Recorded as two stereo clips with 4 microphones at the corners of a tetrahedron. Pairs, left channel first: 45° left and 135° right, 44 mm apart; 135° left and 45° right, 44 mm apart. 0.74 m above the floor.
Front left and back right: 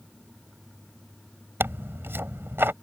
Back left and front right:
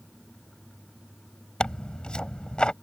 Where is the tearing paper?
160° right.